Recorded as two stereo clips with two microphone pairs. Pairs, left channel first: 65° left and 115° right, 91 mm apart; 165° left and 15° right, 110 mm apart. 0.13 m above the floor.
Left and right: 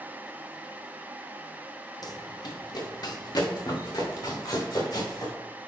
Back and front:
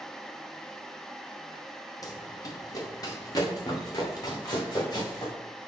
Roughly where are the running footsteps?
Left.